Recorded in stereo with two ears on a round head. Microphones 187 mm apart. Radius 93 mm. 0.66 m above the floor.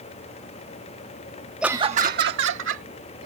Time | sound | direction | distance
1.6 | laughter | 5° right (ahead or behind) | ?